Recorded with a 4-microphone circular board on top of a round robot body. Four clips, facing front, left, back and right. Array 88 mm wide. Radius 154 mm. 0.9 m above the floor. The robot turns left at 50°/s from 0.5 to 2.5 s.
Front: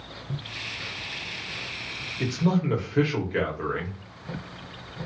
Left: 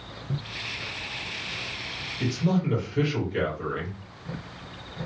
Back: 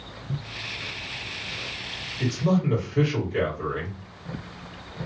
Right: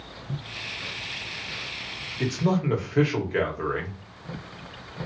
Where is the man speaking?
50° right, 1.6 m; by 4.0 s 65° right, 1.6 m.